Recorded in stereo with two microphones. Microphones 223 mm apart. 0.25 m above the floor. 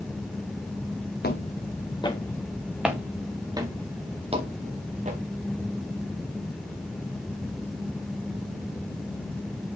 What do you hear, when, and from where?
1.2 s footsteps: 50° left (ahead or behind), 1.2 m; by 5.2 s 35° right (ahead or behind), 2.5 m